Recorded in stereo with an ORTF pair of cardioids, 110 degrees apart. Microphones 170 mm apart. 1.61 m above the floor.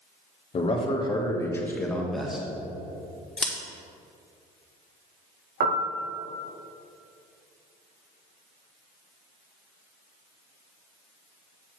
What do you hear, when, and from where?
0.5 s a man speaking: 35° left, 1.4 m; by 2.5 s 5° right, 1.6 m
3.4 s scissors: 5° left, 1.4 m
5.6 s a piano: 65° right, 0.9 m